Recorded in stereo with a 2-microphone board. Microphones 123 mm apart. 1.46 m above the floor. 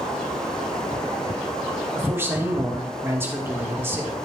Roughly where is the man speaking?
Centre.